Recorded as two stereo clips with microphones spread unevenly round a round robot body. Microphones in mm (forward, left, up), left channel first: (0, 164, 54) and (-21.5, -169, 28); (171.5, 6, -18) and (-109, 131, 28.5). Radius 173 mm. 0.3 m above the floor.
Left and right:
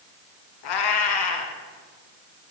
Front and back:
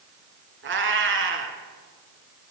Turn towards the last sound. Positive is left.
turn(degrees=100)